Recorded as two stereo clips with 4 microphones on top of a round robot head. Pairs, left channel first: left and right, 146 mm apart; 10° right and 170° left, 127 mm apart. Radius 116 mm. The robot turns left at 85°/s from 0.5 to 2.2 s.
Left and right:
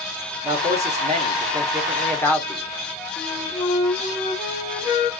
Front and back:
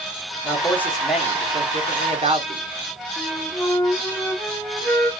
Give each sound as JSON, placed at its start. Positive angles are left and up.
{"t": 0.4, "sound": "a man speaking", "azimuth_deg": -55, "distance_m": 1.8}
{"t": 3.2, "sound": "a flute", "azimuth_deg": 65, "distance_m": 1.7}